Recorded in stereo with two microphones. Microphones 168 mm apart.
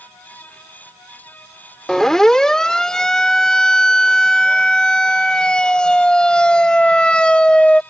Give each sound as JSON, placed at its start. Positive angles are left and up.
{"t": 1.9, "sound": "a siren", "side_deg": 5}